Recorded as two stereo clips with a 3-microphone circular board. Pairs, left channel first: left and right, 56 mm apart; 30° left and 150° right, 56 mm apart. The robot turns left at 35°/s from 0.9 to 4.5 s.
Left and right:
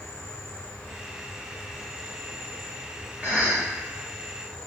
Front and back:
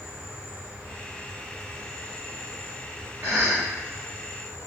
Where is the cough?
135° right, 1.8 m; by 3.7 s 150° right, 1.8 m.